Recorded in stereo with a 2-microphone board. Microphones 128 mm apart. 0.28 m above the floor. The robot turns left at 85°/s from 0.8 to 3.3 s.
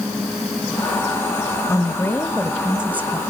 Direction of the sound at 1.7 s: 25° left (ahead or behind).